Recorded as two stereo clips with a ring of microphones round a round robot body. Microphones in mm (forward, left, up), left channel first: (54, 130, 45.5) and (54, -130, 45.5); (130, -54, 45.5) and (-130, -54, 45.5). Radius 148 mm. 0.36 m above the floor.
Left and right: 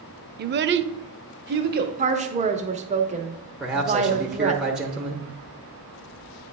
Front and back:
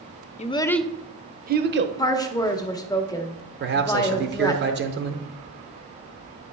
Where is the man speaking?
175° right, 1.0 m.